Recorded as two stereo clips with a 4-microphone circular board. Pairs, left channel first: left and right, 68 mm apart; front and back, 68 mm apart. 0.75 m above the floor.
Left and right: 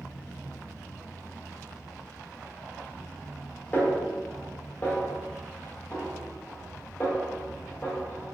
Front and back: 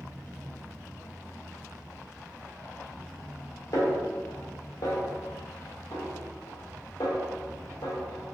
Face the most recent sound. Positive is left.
turn(degrees=25)